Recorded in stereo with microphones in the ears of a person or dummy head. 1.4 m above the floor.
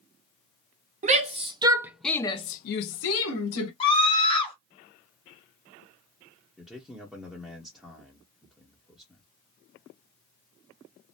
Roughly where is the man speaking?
Centre.